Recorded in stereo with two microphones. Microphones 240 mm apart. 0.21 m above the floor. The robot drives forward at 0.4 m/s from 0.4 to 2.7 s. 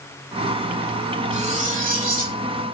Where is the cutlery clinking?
30° right (ahead or behind), 1.0 m; by 2.4 s 40° right (ahead or behind), 0.8 m.